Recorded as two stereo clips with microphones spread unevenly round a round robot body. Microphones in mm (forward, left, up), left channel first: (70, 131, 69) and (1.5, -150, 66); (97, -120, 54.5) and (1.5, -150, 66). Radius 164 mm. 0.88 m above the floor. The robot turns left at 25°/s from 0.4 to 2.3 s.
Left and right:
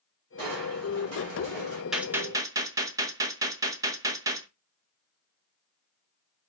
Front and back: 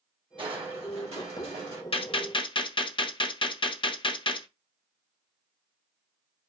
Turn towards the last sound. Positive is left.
turn(degrees=-25)